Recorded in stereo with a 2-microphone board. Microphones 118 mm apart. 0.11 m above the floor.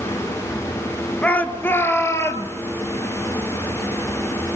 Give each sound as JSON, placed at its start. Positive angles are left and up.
{"t": 1.2, "sound": "a shout", "side_deg": 10, "distance_m": 1.6}